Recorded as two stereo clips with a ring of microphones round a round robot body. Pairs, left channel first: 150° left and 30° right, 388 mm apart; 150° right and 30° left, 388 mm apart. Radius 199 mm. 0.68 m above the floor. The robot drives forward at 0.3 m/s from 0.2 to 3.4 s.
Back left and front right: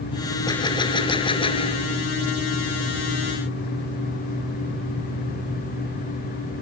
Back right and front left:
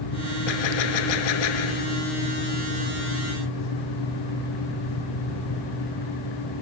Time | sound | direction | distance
0.5 | a gunshot | 130° right | ?